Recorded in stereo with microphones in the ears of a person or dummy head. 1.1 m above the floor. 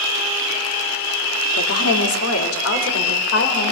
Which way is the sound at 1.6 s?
75° left (ahead or behind).